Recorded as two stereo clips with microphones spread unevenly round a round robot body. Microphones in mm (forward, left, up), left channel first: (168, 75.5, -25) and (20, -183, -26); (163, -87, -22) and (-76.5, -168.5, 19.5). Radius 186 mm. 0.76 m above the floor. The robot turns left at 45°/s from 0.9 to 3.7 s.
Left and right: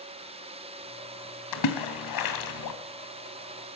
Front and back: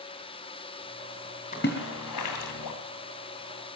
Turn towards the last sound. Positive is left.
turn(degrees=-10)